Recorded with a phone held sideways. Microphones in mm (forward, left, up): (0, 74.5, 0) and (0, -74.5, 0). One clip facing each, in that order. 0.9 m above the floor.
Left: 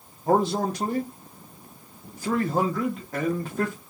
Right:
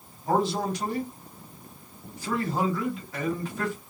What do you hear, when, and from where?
0.3 s a man speaking: 50° left (ahead or behind), 1.5 m